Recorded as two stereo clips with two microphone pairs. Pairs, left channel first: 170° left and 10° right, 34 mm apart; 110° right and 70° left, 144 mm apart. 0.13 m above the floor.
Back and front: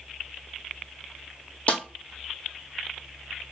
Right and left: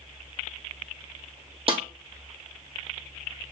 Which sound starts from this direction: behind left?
A snare drum, at 1.7 s.